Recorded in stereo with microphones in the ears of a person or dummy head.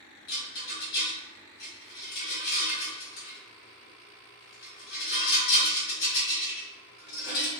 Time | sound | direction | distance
0.3 | a rattle | 60° left (ahead or behind) | 1.6 m